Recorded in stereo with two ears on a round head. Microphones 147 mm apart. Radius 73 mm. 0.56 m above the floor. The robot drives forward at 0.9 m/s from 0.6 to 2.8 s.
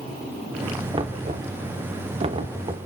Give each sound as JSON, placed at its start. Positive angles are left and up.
{"t": 0.9, "sound": "knocking", "side_deg": -30, "distance_m": 1.1}